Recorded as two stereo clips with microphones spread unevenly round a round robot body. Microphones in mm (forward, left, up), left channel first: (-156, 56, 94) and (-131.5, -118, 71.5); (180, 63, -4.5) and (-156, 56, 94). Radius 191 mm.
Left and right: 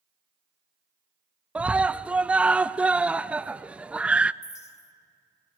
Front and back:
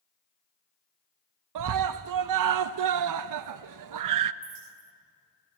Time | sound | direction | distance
1.6 | a scream | 155° right | 0.5 m
4.4 | a clink | 150° left | 1.9 m